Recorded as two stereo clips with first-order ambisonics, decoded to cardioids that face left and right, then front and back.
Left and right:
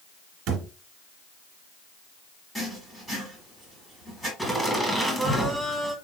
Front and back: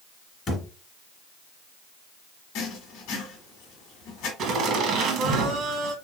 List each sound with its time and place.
0.5 s a thud: 60° right, 1.3 m
2.5 s writing: 10° left, 1.4 m
4.4 s laughter: 175° left, 1.2 m